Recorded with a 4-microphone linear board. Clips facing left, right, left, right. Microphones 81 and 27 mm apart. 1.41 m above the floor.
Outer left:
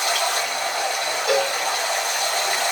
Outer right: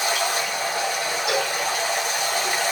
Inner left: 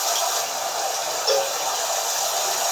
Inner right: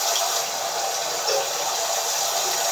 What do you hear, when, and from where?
0.0 s running water: 10° right (ahead or behind), 2 m
1.3 s a cowbell: 40° left (ahead or behind), 1.6 m